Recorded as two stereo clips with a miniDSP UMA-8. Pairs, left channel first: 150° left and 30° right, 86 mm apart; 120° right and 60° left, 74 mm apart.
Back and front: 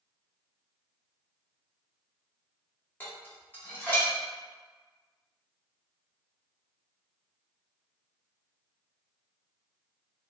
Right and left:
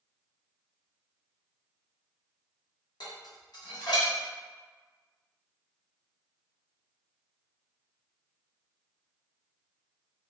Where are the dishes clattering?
140° right, 1.1 m.